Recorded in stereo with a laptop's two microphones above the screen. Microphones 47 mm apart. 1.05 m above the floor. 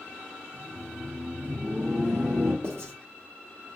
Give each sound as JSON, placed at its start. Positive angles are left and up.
{"t": 0.5, "sound": "laughter", "side_deg": 25, "distance_m": 0.8}
{"t": 2.6, "sound": "writing", "side_deg": -60, "distance_m": 1.1}